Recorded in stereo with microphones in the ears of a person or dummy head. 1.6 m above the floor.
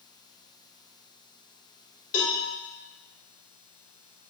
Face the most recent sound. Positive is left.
turn(degrees=45)  # may be behind; listen again after turning